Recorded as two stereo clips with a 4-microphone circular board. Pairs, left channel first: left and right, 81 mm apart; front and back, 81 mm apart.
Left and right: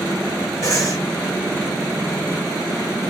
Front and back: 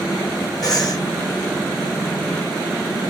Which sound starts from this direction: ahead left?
Breathing, at 0.6 s.